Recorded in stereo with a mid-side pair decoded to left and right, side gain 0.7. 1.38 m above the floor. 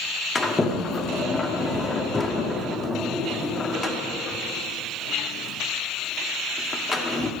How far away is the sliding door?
About 0.8 m.